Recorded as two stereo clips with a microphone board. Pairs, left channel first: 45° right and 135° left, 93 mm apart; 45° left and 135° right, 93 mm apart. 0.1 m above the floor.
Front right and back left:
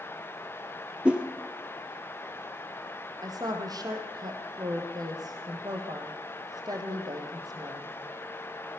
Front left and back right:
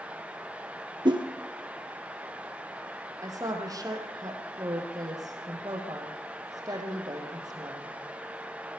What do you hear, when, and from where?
1.1 s a whoosh: 150° right, 1.7 m
3.2 s a woman speaking: straight behind, 4 m